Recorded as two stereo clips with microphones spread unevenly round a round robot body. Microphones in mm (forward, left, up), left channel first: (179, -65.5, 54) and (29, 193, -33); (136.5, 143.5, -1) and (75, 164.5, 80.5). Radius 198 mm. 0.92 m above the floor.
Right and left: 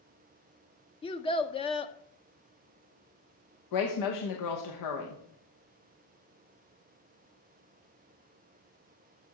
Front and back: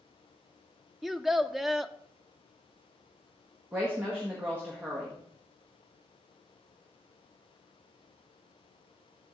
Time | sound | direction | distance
1.0 | a child speaking | 25° left | 0.5 m
3.7 | a woman speaking | 75° right | 0.9 m